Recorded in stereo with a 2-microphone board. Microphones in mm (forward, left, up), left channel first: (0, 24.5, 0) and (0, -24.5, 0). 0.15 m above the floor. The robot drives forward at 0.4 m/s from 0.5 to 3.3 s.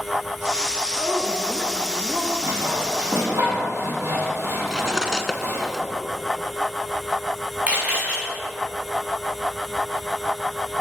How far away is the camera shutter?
About 5 m.